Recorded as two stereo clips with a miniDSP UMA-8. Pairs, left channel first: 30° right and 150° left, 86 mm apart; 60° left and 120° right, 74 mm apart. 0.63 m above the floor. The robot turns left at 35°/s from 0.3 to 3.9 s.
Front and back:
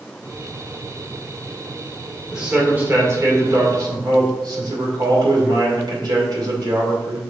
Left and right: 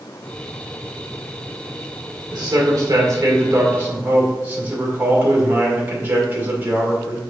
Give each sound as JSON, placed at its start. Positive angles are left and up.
{"t": 2.3, "sound": "a man speaking", "azimuth_deg": -125, "distance_m": 2.0}